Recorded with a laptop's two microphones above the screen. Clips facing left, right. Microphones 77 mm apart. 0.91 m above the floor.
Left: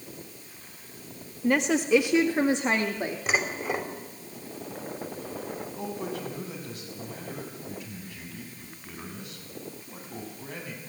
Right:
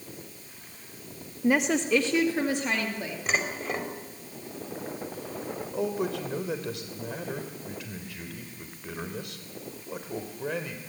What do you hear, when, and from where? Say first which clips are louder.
1.4 s a woman speaking: even; 10° right (ahead or behind), 0.9 m; by 3.2 s 30° left (ahead or behind), 1.9 m
3.3 s dishes clattering: even; 5° left (ahead or behind), 3 m
5.7 s a man speaking: right 8 dB; 80° right, 3 m